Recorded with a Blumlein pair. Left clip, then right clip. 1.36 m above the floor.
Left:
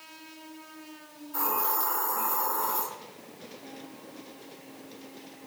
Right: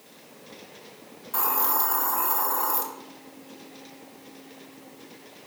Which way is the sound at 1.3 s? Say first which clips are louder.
Right 3 dB; 30° right.